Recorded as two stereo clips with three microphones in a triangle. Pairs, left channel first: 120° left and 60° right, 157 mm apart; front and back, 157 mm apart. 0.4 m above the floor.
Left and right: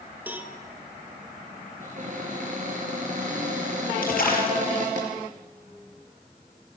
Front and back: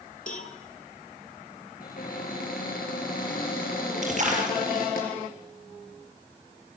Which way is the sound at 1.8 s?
25° right.